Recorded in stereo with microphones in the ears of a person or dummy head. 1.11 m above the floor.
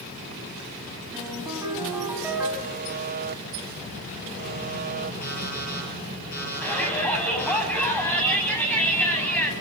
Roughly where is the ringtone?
Centre.